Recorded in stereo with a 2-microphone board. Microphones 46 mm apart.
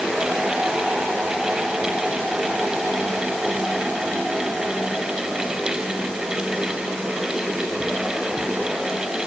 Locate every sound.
Only background noise.